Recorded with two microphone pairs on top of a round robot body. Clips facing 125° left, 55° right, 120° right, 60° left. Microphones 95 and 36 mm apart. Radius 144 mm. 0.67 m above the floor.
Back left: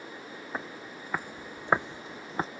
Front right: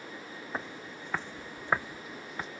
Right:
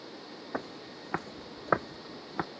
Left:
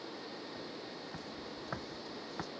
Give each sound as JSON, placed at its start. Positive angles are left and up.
{"t": 0.5, "sound": "footsteps", "azimuth_deg": -145}